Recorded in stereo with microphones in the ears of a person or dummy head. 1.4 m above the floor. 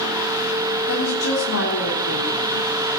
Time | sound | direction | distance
0.9 | a woman speaking | 85° left | 3.5 m